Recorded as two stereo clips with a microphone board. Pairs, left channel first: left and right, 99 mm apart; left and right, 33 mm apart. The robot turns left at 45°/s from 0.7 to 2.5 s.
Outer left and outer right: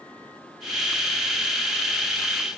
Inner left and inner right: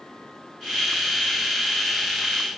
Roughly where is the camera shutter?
No camera shutter in this recording.